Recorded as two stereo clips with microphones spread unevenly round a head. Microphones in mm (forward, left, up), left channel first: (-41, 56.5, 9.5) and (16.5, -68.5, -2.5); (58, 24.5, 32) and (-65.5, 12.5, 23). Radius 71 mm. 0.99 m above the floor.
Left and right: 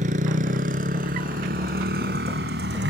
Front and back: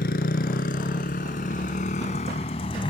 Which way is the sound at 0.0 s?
20° right.